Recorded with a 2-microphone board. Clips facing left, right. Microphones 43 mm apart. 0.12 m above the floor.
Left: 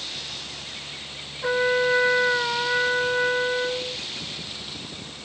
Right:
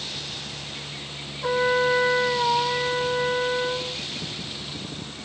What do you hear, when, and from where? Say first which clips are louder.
1.4 s a trumpet: even; 25° left (ahead or behind), 1.6 m